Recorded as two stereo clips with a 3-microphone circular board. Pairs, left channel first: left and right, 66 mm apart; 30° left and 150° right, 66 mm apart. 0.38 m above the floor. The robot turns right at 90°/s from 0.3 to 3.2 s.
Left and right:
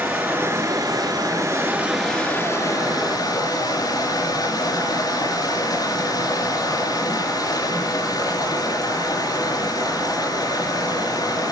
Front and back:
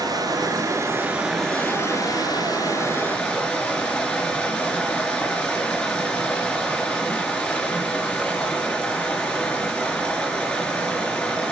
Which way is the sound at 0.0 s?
150° right.